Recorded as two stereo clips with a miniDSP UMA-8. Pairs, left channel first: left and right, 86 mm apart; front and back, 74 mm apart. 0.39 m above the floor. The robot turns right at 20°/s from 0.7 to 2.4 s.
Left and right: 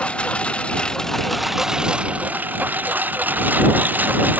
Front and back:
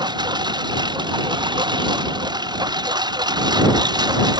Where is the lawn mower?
165° left; by 4.4 s 160° right.